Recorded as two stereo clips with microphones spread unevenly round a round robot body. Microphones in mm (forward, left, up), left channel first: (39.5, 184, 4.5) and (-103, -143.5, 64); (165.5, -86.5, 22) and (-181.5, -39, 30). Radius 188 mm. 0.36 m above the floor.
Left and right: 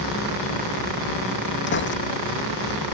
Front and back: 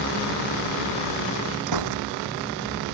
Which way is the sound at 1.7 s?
125° left.